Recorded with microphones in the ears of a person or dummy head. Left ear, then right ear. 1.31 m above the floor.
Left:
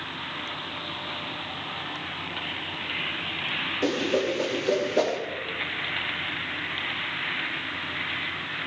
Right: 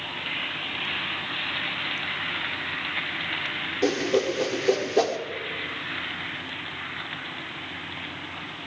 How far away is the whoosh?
About 0.9 m.